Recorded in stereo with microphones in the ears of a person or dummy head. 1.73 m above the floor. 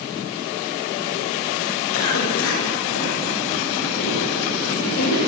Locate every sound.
1.9 s a cough: 85° left, 9 m